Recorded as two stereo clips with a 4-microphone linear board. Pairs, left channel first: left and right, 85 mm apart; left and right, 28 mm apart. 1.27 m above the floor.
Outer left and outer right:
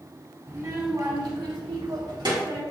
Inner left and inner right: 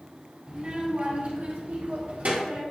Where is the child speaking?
40° right (ahead or behind), 1.8 m; by 2.6 s 55° right (ahead or behind), 1.9 m.